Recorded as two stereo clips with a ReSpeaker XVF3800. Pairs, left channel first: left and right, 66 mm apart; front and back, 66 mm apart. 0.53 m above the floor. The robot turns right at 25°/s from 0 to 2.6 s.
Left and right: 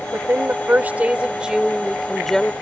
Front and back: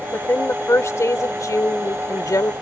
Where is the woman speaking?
50° right; by 2.5 s 10° left.